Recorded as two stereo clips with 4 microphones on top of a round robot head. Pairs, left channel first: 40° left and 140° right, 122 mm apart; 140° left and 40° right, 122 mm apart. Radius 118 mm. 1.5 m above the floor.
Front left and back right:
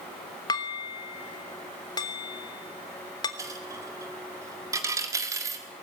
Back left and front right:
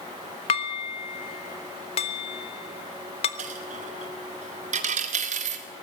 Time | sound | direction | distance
0.5 | dishes clattering | 100° left | 1.0 m
3.4 | a dropped coin | 75° right | 1.7 m